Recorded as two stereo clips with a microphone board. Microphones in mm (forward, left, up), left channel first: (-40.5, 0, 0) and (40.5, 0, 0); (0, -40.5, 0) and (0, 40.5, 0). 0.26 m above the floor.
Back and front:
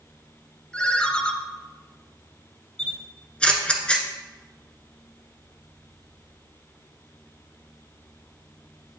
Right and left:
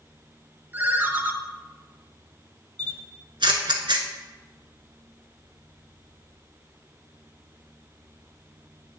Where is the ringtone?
120° left, 0.7 m.